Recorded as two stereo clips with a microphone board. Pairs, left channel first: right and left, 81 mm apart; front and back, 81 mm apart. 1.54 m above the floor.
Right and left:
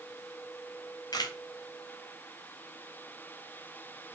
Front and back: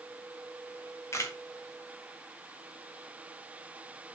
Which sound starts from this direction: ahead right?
A camera shutter, at 1.1 s.